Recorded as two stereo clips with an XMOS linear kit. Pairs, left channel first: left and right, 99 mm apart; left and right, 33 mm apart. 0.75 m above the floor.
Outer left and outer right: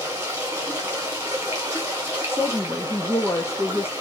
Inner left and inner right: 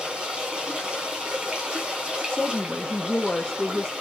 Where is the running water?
25° right (ahead or behind), 1.9 m.